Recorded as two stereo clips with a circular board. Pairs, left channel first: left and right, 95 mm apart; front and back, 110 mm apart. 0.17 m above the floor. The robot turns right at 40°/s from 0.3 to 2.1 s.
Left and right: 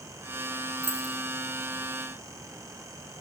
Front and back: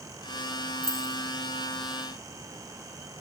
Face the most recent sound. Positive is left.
turn(degrees=110)